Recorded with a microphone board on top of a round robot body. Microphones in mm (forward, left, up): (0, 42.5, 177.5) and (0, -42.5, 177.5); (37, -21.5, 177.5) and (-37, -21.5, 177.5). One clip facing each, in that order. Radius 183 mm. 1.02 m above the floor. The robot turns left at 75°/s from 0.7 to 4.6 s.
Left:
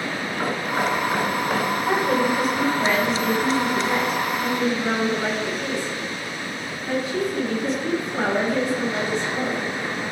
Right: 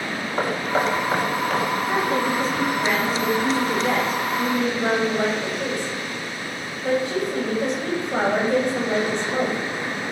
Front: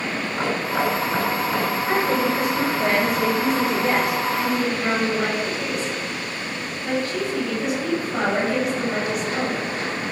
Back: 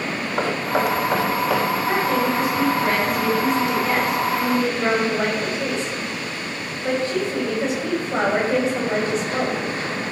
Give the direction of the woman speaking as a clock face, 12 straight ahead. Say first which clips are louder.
Left 4 dB, front 2 dB; 9 o'clock.